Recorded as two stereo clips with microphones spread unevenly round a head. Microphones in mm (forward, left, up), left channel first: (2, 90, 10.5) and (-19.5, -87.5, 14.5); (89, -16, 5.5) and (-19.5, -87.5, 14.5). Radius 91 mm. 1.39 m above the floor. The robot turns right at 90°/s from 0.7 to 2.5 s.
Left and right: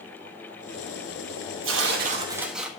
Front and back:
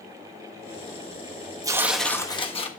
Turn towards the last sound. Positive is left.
turn(degrees=-10)